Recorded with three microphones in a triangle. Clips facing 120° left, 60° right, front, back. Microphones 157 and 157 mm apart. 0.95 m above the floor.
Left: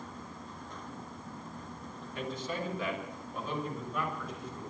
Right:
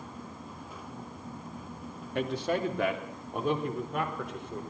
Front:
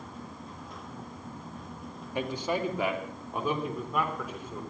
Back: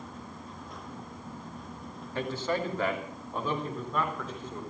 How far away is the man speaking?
About 2 m.